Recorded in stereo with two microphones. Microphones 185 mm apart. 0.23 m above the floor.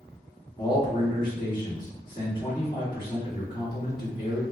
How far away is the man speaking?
About 1.7 m.